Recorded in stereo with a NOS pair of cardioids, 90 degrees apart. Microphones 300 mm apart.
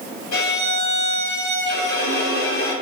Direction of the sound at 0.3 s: 65° left.